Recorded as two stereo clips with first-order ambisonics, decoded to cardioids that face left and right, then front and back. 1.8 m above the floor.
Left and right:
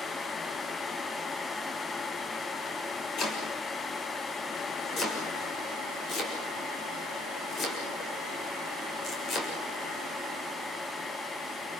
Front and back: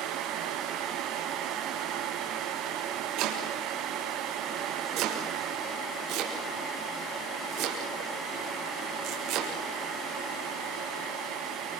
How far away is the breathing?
No breathing in this recording.